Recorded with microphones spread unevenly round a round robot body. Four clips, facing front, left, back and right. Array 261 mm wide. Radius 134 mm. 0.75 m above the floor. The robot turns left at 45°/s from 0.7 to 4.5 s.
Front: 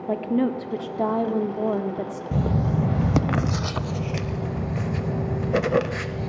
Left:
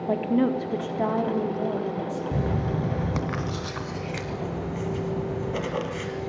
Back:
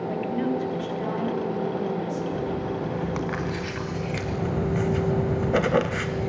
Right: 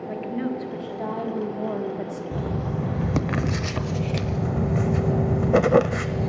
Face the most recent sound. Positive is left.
turn(degrees=-90)